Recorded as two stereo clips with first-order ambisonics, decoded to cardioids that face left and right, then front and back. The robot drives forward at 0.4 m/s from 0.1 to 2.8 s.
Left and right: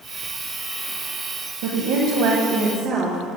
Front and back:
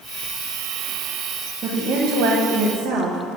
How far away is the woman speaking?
About 0.6 m.